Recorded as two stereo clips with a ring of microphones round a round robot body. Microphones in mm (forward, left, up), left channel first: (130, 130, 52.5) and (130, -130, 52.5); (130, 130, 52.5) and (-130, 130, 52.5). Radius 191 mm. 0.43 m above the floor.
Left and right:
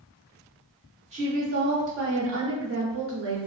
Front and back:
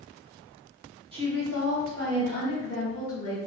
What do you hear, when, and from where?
1.1 s a woman speaking: 130° right, 0.8 m; by 3.4 s 65° right, 1.5 m